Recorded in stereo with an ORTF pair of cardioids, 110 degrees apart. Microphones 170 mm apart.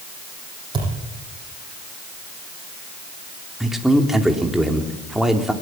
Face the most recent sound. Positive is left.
turn(degrees=0)